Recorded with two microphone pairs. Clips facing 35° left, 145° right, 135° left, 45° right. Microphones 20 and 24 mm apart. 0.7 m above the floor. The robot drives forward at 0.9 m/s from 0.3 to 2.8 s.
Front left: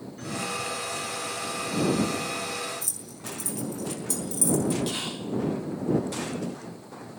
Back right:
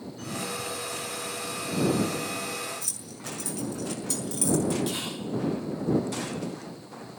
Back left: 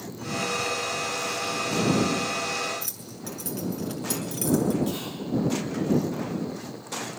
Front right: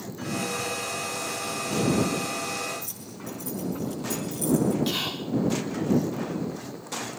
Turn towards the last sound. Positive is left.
turn(degrees=-45)